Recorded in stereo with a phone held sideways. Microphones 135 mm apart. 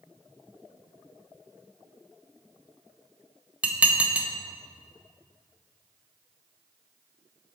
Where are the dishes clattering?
10° right (ahead or behind), 0.6 m.